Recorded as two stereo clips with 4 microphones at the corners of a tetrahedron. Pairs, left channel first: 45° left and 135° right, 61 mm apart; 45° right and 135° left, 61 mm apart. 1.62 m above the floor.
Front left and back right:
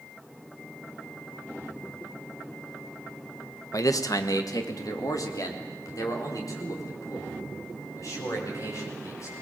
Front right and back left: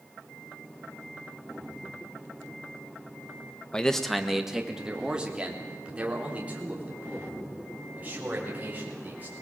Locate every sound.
3.7 s a man speaking: 30° left, 1.3 m; by 9.3 s 75° left, 8 m